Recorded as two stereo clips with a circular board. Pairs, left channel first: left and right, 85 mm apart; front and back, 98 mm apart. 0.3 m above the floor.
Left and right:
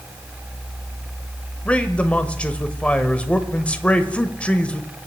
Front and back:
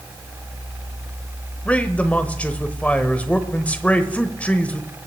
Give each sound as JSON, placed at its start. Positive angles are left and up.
{"t": 1.6, "sound": "a man speaking", "azimuth_deg": 45, "distance_m": 1.0}